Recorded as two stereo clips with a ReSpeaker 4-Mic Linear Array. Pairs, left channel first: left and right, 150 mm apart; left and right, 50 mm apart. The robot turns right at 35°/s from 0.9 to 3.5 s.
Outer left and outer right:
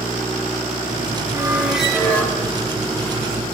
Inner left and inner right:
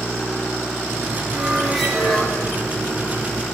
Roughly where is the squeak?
Ahead.